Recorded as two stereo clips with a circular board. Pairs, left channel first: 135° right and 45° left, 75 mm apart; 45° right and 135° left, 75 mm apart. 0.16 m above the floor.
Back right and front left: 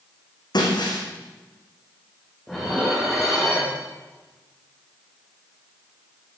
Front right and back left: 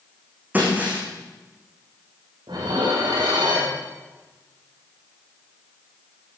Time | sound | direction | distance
0.5 | breaking glass | 155° right | 5 m
2.5 | dishes clattering | 140° left | 6.5 m